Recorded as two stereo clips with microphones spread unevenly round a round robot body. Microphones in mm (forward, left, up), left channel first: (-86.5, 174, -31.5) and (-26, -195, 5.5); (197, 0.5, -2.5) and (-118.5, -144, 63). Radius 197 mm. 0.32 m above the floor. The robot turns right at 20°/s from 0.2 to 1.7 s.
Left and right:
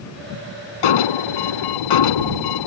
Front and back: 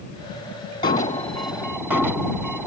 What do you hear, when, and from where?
0.8 s an alarm: 95° left; by 2.7 s 115° left